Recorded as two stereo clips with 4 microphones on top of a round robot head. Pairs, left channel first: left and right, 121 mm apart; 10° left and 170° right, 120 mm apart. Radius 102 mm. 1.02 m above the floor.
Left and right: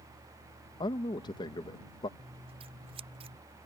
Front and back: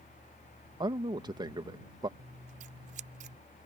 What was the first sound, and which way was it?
A man speaking, 140° left.